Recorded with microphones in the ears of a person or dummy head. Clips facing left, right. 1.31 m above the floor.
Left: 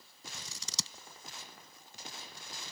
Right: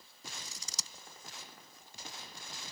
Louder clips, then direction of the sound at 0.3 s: Left 5 dB; 60° left (ahead or behind).